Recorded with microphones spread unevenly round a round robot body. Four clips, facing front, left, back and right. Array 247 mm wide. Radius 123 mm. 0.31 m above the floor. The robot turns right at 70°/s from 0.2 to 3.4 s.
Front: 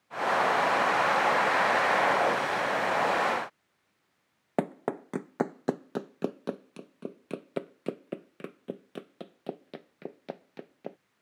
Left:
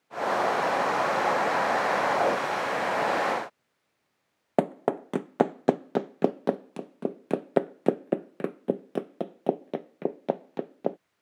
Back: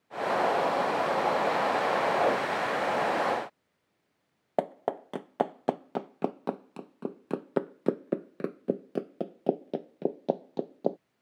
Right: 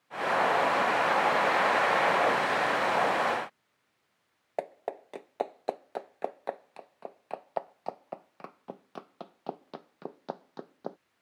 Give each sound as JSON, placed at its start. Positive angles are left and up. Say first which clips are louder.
{"t": 4.6, "sound": "running footsteps", "louder": "left 10 dB, back 1 dB", "azimuth_deg": 65}